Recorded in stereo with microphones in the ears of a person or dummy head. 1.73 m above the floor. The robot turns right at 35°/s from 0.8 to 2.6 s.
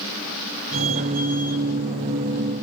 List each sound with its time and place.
Only background noise.